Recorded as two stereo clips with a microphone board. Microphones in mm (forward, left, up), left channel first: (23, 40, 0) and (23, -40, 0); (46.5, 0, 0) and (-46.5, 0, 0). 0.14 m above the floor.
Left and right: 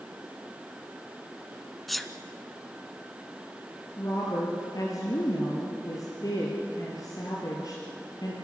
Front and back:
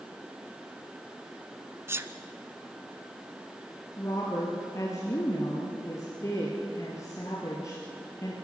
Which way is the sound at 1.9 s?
Straight behind.